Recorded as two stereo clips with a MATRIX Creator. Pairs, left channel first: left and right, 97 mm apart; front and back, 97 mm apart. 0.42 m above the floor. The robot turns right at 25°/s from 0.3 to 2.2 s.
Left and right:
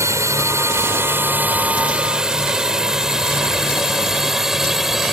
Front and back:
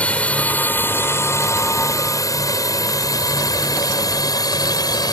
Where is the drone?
65° right; by 5.1 s 5° right.